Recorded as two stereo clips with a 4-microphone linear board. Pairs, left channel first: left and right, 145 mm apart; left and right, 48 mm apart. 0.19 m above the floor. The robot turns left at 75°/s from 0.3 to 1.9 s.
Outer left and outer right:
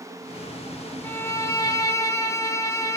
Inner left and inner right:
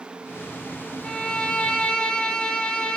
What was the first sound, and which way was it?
A violin, 15° left (ahead or behind).